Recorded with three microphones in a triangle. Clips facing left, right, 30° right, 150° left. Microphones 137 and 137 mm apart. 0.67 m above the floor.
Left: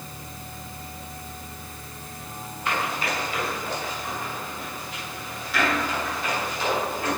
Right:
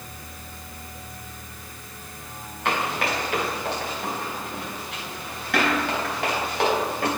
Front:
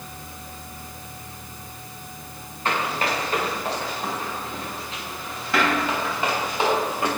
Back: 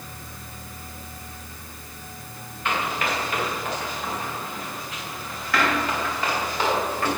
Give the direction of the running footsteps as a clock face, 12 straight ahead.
3 o'clock.